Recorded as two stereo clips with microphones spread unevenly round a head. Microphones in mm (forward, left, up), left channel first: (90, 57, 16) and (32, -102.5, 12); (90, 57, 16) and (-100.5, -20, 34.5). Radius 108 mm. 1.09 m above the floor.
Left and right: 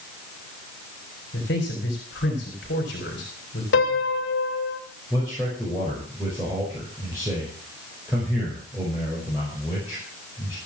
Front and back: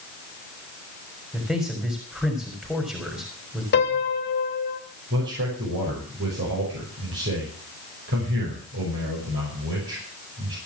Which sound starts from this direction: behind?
A man speaking, at 5.1 s.